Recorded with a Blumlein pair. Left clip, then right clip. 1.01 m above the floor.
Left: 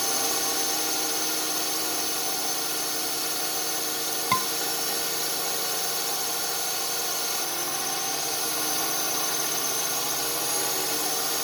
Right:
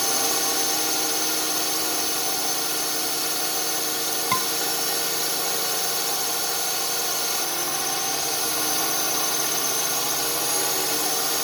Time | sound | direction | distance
0.0 | a drone | 10° right | ?
4.3 | a scream | straight ahead | ?